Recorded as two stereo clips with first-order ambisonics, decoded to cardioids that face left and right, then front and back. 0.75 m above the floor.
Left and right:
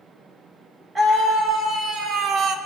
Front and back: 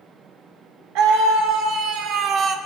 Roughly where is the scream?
Behind.